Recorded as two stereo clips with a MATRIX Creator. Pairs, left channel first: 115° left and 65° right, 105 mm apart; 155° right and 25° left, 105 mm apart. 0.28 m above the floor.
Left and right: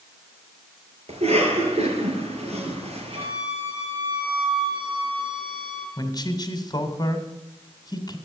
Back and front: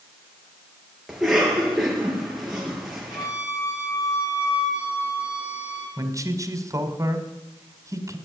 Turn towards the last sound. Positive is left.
turn(degrees=70)